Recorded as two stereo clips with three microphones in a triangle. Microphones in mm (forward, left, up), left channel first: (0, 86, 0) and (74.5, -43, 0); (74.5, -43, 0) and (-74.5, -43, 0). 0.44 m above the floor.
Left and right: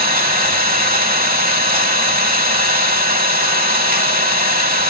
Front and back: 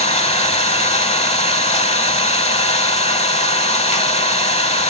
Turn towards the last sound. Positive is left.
turn(degrees=-45)